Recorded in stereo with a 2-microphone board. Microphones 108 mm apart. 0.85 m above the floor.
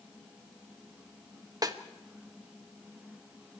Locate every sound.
1.6 s a snare drum: 35° right (ahead or behind), 1.2 m